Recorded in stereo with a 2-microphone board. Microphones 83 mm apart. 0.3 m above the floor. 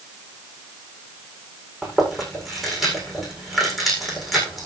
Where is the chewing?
Centre (ahead or behind), 8 m.